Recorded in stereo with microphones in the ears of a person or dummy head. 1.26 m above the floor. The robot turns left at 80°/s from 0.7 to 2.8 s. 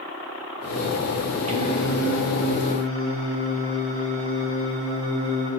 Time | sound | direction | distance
1.5 | singing | 50° right | 1.8 m